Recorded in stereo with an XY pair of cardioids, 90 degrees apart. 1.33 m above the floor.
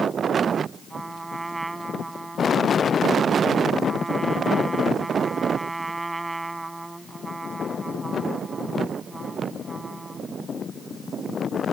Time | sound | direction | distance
0.9 | a trumpet | 15° right | ?